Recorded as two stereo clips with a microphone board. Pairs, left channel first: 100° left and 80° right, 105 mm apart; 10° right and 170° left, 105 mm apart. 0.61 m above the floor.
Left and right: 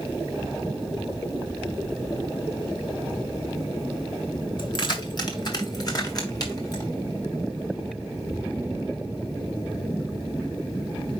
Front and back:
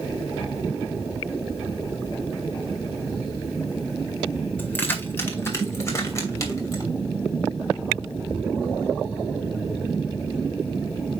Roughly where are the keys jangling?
Ahead left.